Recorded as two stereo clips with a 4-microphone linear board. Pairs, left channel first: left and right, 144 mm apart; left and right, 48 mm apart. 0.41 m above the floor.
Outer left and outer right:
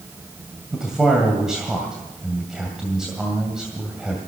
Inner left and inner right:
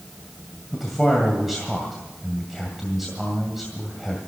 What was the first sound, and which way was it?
A man speaking, 5° right (ahead or behind).